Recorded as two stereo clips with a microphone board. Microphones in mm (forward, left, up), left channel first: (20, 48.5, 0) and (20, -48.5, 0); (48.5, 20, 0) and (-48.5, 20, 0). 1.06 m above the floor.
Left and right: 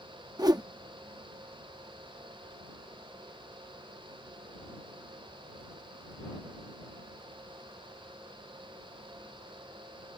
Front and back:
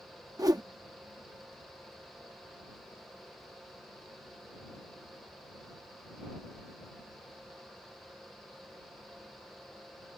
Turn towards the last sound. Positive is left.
turn(degrees=-135)